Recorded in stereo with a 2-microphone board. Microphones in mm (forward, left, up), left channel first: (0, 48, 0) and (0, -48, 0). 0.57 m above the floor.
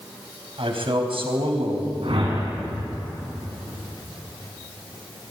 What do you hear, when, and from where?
0.6 s a man speaking: 70° right (ahead or behind), 4 m
2.0 s a whoosh: 80° right, 6.5 m